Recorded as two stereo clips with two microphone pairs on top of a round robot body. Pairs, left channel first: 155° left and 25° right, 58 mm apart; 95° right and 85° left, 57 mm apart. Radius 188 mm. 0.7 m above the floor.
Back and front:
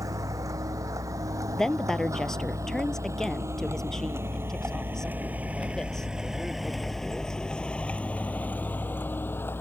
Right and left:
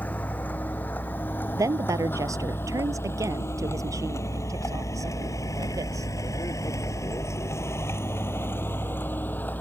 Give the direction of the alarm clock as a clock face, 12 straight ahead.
I don't hear an alarm clock.